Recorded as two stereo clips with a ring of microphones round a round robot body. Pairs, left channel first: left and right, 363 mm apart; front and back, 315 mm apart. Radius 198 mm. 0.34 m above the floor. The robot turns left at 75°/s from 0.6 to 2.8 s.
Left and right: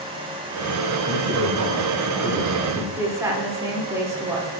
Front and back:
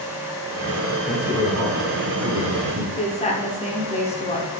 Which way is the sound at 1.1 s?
65° right.